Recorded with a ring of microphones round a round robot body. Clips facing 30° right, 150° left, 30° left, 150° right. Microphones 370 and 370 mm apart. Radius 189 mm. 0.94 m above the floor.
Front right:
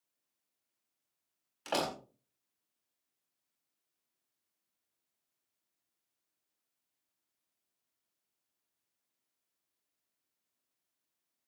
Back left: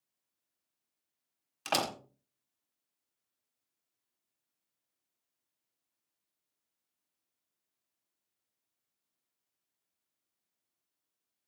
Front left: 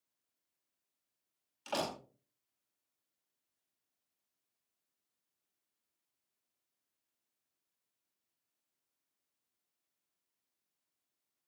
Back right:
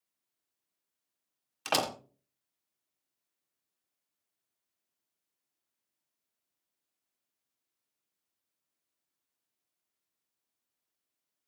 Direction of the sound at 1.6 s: 150° right.